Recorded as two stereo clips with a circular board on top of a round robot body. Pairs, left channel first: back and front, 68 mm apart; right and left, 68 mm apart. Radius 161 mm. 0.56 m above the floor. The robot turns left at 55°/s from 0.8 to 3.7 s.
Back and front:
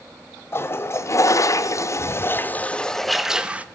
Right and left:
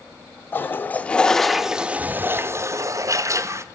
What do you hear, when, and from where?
0.5 s a toilet flushing: 140° right, 0.6 m; by 3.6 s 60° left, 0.6 m